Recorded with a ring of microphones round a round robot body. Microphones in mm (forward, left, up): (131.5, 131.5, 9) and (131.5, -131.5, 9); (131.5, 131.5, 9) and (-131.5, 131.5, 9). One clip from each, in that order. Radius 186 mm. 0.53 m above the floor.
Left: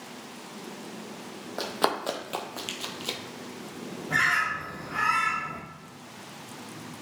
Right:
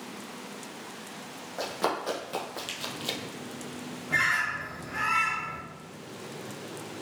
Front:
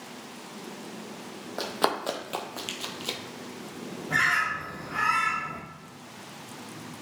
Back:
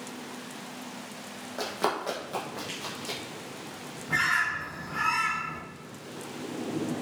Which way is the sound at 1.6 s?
50° left.